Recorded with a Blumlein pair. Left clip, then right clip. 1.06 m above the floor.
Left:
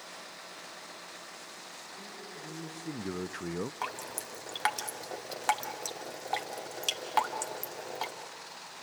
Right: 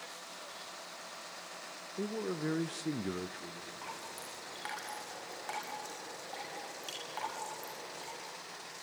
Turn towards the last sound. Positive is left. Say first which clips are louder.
# left 6 dB
turn(degrees=35)